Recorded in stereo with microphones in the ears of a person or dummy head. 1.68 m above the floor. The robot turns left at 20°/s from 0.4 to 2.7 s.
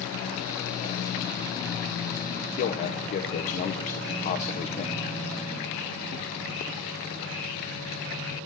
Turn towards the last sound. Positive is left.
turn(degrees=45)  # may be behind; listen again after turning